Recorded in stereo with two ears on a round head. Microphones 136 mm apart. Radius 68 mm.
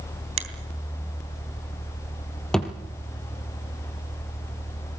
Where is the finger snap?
45° right (ahead or behind), 3 m.